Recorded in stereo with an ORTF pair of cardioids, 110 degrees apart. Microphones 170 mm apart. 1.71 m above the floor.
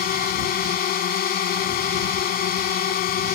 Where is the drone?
60° left.